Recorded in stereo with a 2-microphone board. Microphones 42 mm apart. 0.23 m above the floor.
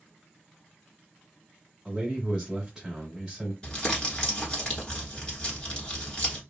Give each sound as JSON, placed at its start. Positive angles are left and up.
{"t": 1.9, "sound": "a man speaking", "side_deg": -10, "distance_m": 1.5}
{"t": 3.6, "sound": "crumpling", "side_deg": 20, "distance_m": 1.2}